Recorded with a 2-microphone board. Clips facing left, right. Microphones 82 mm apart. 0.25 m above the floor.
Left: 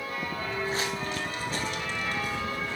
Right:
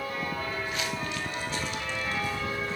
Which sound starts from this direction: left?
Footsteps, at 0.4 s.